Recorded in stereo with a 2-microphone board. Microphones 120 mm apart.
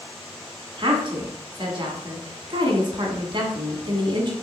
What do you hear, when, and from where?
0.8 s a woman speaking: 45° right (ahead or behind), 0.9 m